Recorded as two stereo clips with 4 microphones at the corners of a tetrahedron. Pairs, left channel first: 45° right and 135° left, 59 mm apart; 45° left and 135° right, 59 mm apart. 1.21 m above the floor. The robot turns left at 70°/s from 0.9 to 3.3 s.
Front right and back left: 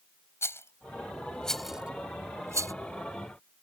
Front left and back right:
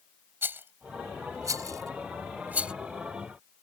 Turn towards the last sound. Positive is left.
turn(degrees=110)